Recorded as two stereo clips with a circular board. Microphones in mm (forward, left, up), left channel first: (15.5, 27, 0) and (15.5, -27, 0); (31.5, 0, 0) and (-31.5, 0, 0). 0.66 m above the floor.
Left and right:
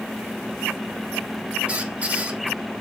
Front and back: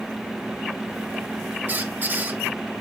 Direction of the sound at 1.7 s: 140° right.